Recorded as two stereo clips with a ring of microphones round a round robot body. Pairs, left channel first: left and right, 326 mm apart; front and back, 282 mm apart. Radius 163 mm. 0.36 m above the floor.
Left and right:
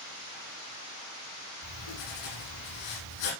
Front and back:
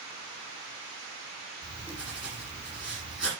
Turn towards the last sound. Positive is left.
turn(degrees=95)